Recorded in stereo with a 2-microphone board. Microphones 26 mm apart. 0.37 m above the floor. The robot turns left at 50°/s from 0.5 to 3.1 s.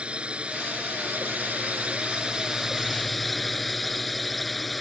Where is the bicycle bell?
I don't hear a bicycle bell.